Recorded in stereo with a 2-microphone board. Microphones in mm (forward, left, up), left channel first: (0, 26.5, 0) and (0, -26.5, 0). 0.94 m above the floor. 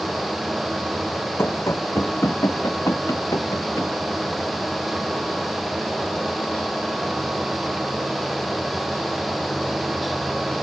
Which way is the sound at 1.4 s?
60° left (ahead or behind).